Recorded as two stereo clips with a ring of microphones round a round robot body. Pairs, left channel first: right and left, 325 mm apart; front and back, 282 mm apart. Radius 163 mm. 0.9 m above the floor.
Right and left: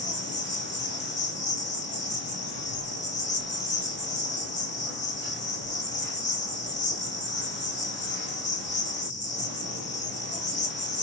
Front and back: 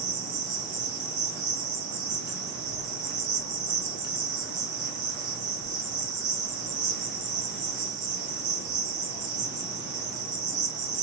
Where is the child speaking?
65° right, 1.0 m.